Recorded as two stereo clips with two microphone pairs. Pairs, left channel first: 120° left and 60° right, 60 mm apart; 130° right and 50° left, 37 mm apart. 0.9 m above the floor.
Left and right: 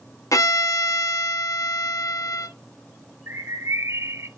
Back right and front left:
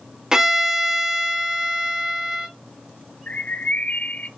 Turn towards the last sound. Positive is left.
turn(degrees=-85)